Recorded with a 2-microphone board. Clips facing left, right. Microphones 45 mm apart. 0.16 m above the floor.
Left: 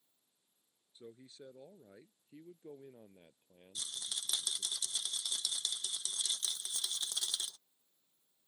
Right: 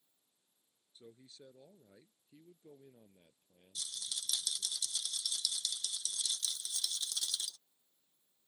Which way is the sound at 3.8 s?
35° left (ahead or behind).